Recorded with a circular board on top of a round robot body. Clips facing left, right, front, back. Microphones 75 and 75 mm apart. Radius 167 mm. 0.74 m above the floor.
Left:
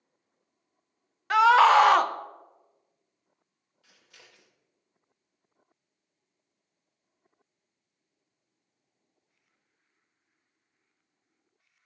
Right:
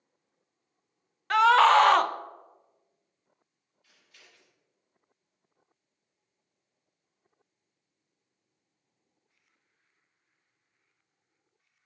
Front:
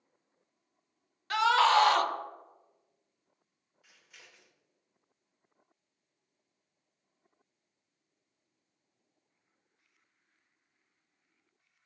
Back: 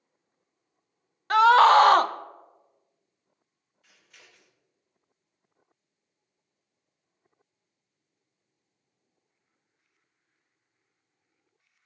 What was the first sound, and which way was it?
A scream, 175° left.